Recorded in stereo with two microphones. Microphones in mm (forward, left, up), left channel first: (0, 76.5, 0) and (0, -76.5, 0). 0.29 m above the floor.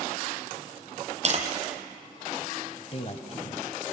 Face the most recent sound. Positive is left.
turn(degrees=45)  # may be behind; listen again after turning